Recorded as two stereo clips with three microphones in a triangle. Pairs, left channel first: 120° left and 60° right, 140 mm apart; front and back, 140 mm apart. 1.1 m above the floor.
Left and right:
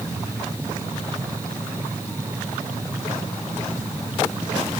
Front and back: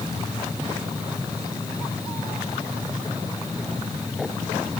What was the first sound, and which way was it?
Only background noise.